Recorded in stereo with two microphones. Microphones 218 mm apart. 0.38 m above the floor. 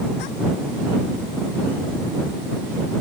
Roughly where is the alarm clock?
No alarm clock in this recording.